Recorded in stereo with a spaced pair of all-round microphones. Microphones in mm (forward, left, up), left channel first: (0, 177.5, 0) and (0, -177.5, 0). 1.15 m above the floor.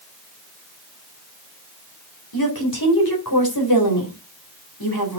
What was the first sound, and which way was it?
A woman speaking, 80° left.